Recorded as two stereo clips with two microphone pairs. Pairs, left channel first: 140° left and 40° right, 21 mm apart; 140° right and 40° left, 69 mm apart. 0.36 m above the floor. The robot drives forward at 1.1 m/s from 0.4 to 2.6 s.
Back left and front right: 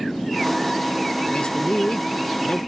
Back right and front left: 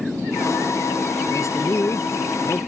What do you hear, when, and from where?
1.3 s a man speaking: straight behind